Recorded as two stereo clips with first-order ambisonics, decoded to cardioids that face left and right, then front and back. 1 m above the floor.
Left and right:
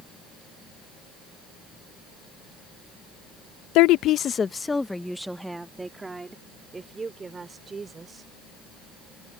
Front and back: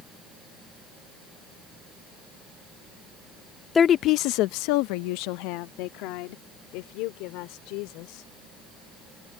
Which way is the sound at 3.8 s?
75° left.